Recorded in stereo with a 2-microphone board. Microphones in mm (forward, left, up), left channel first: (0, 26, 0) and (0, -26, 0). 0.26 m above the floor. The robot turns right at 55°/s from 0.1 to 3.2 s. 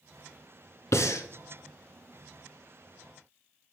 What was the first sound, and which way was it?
Breathing, 80° left.